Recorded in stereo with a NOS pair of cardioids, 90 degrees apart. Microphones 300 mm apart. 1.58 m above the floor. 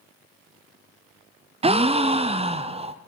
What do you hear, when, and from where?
1.6 s a gasp: 20° right, 0.5 m